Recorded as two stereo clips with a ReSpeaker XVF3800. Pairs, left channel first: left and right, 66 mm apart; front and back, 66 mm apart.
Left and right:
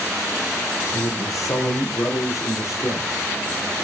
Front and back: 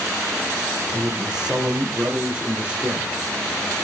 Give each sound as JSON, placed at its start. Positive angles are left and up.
{"t": 0.9, "sound": "a man speaking", "azimuth_deg": 100, "distance_m": 5.0}